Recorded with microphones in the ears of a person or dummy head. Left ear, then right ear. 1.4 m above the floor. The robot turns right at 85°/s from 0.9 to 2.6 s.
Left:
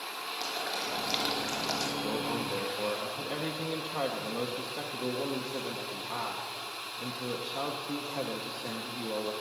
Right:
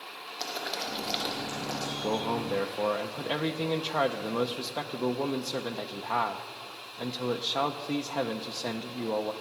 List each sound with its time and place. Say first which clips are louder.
0.4 s boiling: right 2 dB; 15° right, 2 m; by 1.9 s 70° left, 2 m
2.0 s a man speaking: right 3 dB; 110° right, 0.6 m; by 9.3 s 60° right, 0.6 m